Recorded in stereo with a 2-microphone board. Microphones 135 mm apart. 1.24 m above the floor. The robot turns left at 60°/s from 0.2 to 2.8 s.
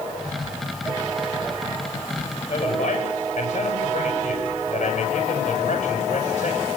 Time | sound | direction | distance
2.5 | a man speaking | 40° left (ahead or behind) | 9.5 m